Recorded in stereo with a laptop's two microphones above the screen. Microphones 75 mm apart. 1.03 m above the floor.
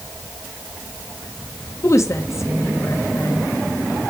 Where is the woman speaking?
45° left (ahead or behind), 1.1 m.